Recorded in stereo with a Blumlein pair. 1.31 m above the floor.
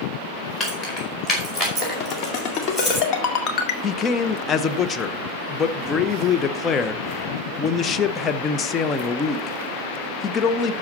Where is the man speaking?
20° left, 0.8 m.